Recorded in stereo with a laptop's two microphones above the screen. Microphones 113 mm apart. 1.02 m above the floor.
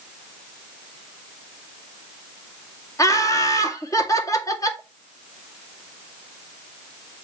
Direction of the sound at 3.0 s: 30° left (ahead or behind).